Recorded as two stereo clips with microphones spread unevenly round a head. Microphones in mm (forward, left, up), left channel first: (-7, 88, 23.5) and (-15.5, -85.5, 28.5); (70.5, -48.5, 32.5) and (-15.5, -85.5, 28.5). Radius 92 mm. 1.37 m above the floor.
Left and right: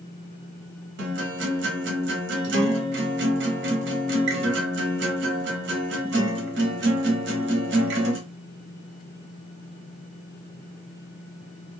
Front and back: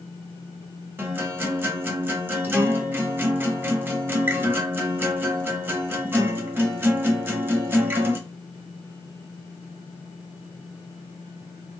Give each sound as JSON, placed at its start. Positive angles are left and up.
{"t": 1.0, "sound": "a guitar", "azimuth_deg": -90, "distance_m": 0.9}